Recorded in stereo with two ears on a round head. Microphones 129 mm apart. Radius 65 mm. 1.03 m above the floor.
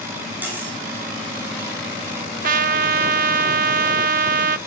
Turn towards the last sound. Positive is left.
turn(degrees=-65)  # may be behind; listen again after turning